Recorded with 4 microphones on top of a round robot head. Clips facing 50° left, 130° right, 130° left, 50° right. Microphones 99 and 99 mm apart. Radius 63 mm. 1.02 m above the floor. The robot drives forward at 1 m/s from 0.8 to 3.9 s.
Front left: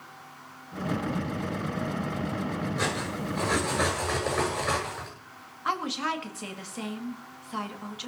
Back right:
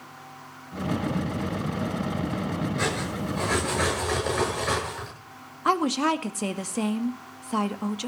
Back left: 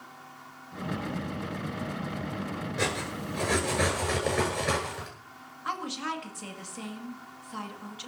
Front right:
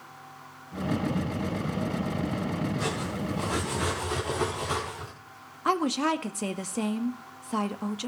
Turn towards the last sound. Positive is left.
turn(degrees=-85)